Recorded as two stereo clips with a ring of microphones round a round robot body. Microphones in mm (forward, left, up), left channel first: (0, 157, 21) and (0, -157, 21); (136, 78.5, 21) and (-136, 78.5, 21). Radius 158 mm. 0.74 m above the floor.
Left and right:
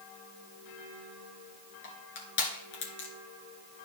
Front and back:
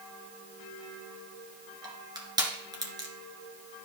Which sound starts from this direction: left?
Crushing, at 1.8 s.